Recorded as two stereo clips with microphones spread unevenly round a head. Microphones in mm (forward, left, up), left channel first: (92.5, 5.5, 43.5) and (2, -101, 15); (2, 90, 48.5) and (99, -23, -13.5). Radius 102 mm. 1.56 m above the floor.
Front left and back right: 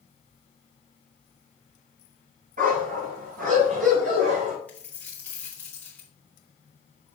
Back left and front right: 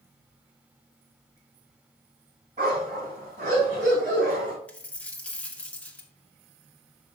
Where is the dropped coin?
105° left, 1.0 m.